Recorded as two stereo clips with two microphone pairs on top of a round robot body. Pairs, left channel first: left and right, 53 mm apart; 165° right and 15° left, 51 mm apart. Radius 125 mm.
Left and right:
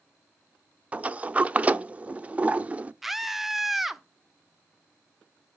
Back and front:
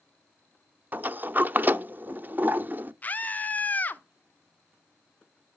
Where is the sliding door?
30° right, 0.9 m.